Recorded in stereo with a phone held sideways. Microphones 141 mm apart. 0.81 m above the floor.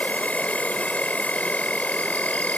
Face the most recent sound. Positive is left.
turn(degrees=10)  # may be behind; listen again after turning